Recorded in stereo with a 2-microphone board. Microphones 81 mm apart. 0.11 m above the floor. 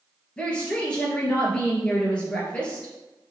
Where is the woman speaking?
15° left (ahead or behind), 1.8 m.